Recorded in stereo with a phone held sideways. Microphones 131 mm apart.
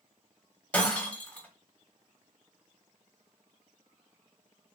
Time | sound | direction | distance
0.7 | breaking glass | 10° left (ahead or behind) | 1.3 m